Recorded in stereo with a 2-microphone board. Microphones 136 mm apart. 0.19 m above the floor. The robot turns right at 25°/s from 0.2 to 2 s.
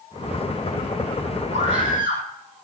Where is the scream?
50° right (ahead or behind), 6.5 m; by 2.2 s 40° right (ahead or behind), 6.5 m.